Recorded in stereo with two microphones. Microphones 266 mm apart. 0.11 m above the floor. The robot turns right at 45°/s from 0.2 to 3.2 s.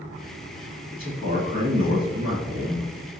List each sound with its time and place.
0.9 s a man speaking: 80° right, 1.7 m; by 3.1 s 15° left, 1.7 m